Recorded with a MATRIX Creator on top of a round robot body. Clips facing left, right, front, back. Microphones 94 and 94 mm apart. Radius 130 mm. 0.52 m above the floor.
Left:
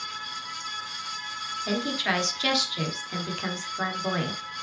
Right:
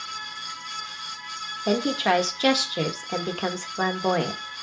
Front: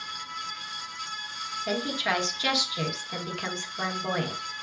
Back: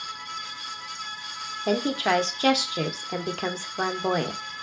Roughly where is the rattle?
No rattle in this recording.